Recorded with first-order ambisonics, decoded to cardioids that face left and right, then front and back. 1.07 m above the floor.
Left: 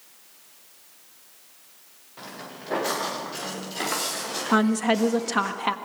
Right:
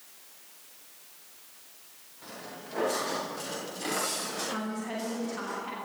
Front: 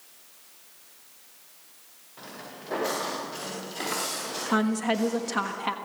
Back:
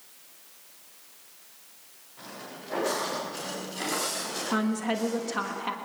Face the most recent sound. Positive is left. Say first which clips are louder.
# left 13 dB, front 4 dB
turn(degrees=75)